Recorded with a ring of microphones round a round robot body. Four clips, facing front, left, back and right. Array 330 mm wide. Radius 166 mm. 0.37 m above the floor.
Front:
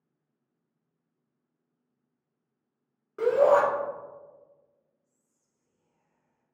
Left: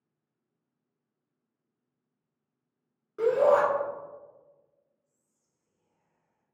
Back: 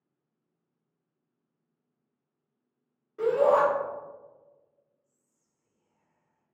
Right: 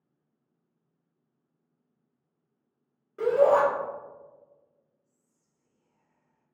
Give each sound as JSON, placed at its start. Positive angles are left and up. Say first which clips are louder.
{"t": 3.2, "sound": "a shout", "louder": "right 1 dB, front 2 dB", "azimuth_deg": 20, "distance_m": 1.3}
{"t": 5.0, "sound": "whispering", "louder": "right 4 dB, even", "azimuth_deg": -135, "distance_m": 0.9}